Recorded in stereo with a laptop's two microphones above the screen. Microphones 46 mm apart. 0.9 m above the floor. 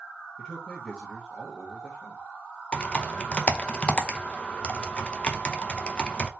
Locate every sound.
0.4 s a man speaking: 15° left (ahead or behind), 1.0 m
2.7 s typing on a keyboard: 25° left (ahead or behind), 0.7 m